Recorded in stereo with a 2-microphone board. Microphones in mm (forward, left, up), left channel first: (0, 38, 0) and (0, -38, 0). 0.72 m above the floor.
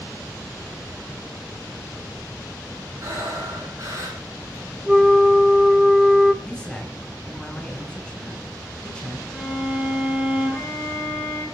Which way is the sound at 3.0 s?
45° right (ahead or behind).